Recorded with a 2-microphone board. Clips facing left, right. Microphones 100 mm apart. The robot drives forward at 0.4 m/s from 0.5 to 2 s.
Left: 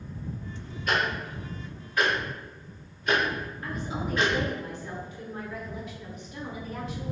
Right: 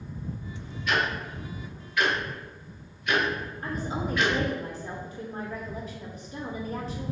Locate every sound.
0.9 s ticking: 45° left (ahead or behind), 1.2 m; by 4.3 s 35° left (ahead or behind), 1.5 m
3.6 s a woman speaking: 35° right (ahead or behind), 0.7 m